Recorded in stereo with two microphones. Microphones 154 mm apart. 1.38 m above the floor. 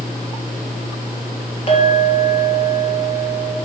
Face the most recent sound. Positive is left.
turn(degrees=40)  # may be behind; listen again after turning